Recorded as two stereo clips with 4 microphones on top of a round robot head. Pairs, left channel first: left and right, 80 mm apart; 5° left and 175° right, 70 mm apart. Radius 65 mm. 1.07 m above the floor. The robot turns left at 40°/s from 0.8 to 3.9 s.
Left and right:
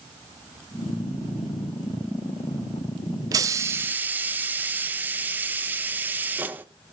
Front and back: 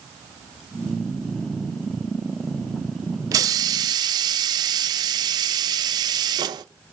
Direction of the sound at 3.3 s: 135° right.